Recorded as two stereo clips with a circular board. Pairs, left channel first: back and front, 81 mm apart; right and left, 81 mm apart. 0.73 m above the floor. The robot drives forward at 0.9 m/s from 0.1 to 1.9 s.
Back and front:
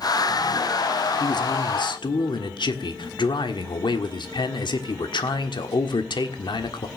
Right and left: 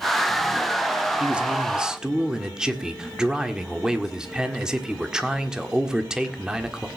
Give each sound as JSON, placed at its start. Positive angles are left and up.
{"t": 1.2, "sound": "a man speaking", "azimuth_deg": 165, "distance_m": 0.9}